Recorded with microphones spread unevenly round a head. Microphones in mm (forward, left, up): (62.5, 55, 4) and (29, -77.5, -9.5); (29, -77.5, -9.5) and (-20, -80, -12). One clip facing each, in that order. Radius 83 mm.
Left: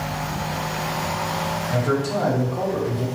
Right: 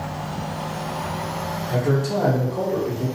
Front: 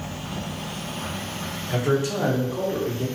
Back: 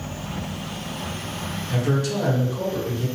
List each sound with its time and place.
1.7 s a man speaking: 65° right, 1.3 m; by 3.1 s 25° right, 1.0 m